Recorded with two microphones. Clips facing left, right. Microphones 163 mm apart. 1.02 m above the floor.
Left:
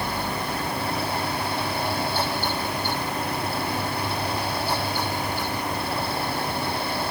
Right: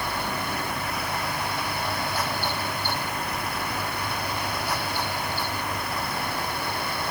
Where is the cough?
No cough in this recording.